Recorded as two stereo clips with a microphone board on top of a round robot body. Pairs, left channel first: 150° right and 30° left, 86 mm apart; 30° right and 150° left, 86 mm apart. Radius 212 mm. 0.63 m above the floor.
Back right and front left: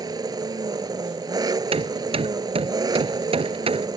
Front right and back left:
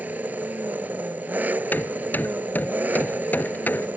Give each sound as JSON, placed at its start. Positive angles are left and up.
{"t": 0.0, "sound": "an engine running", "azimuth_deg": 75}
{"t": 1.7, "sound": "hammering", "azimuth_deg": 40}